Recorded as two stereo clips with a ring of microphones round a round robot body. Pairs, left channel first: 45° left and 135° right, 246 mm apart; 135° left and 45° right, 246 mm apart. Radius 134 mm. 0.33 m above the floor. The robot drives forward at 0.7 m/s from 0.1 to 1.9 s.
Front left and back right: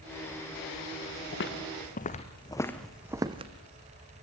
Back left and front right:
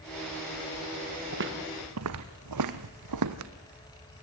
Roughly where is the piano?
No piano in this recording.